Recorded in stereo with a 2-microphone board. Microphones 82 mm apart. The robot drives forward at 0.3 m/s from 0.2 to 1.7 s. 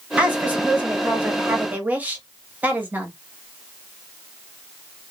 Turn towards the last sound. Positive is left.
turn(degrees=-20)  # may be behind; listen again after turning